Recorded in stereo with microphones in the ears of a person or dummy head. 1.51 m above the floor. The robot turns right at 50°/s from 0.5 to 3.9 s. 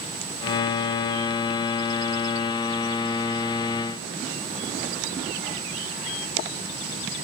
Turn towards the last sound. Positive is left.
No sound to turn to.